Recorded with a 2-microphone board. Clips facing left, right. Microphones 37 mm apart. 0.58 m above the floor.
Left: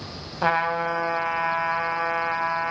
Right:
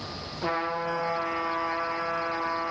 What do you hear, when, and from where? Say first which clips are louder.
0.4 s a trumpet: left 6 dB; 80° left, 1.1 m